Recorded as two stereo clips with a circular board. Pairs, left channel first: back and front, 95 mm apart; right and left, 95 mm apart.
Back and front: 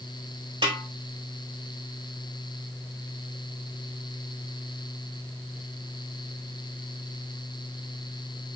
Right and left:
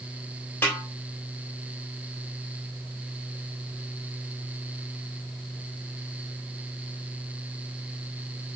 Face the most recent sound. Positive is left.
turn(degrees=-20)